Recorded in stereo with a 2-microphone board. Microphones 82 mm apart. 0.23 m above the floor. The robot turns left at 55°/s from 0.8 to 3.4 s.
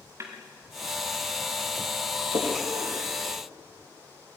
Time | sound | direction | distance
0.2 | a snare drum | 35° right (ahead or behind) | 4.5 m
2.3 | a splash | 80° right | 7 m